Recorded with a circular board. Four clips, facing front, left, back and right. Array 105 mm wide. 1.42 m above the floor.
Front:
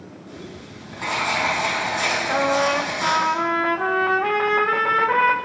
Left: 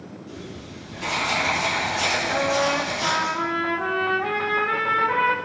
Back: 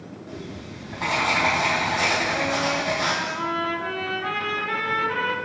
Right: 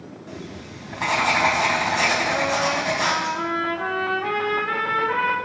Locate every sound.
0.3 s writing: 100° right, 5.5 m
2.3 s a trumpet: straight ahead, 1.6 m